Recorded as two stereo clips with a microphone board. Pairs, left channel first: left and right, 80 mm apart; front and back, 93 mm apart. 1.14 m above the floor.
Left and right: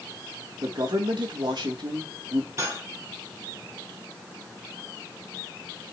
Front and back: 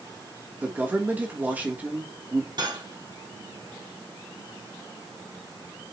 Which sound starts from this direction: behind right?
Cutlery clinking, at 2.6 s.